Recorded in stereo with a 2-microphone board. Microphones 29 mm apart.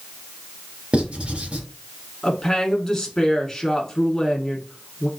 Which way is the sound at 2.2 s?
15° left (ahead or behind).